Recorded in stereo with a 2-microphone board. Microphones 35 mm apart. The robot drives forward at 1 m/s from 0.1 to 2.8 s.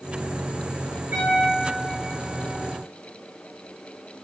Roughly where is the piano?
Right.